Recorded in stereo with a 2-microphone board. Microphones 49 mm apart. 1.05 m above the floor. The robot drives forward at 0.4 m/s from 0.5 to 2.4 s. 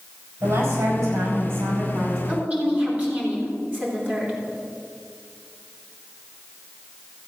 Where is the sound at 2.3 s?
35° right (ahead or behind), 3.5 m.